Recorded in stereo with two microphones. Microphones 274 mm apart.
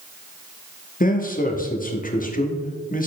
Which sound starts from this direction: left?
A man speaking, at 1.0 s.